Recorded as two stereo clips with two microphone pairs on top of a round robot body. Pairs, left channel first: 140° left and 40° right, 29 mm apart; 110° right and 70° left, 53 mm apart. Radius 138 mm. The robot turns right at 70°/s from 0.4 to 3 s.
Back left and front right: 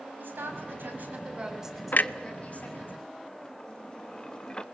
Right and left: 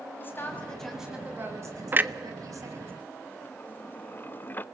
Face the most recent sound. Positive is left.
turn(degrees=-160)